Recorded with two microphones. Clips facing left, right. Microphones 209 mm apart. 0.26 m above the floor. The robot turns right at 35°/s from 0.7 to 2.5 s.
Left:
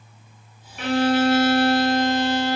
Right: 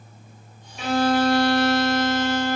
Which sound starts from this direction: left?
A violin, at 0.8 s.